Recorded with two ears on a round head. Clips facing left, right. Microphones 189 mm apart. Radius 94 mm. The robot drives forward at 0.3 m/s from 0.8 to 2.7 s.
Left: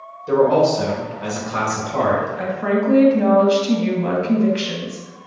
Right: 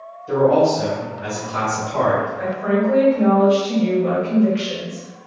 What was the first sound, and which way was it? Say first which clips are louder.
A man speaking: even; 55° left (ahead or behind).